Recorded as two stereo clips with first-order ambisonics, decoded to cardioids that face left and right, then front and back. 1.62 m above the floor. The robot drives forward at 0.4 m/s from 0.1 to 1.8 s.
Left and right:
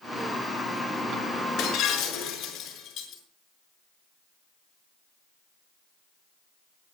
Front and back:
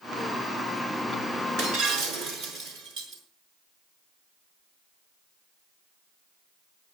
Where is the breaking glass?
140° left, 5.5 m; by 3.2 s 145° left, 5.5 m.